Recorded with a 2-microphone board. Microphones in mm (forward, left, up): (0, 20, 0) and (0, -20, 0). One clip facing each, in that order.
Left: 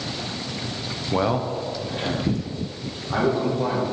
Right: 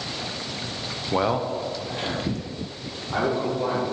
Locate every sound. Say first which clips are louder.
1.1 s a man speaking: even; 5° right (ahead or behind), 0.5 m; by 3.9 s 10° left (ahead or behind), 2.5 m